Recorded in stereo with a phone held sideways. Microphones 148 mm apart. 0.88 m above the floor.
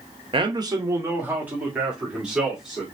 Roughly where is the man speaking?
Right.